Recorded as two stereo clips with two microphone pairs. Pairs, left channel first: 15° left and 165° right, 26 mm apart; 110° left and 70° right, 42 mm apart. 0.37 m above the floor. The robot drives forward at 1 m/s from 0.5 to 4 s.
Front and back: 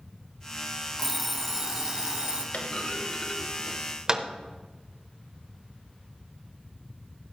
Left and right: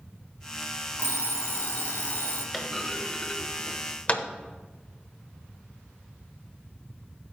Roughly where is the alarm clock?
Left.